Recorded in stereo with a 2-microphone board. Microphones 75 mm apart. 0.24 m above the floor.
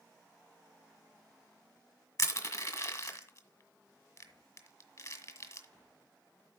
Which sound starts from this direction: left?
Crushing, at 2.2 s.